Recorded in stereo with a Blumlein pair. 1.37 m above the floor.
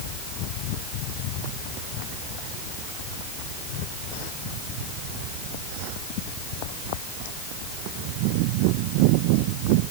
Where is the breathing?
I don't hear breathing.